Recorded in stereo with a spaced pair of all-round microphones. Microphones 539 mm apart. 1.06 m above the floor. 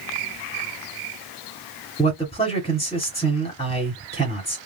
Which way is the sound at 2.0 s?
10° left (ahead or behind).